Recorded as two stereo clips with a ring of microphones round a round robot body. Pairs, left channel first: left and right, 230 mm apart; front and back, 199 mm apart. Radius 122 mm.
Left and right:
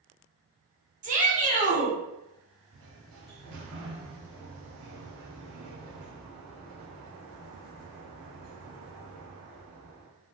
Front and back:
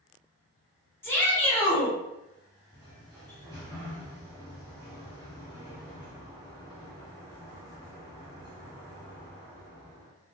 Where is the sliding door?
110° right, 1.3 m.